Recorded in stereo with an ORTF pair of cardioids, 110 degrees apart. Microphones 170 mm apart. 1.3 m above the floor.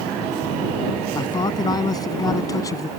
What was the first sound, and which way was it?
A man speaking, 25° left.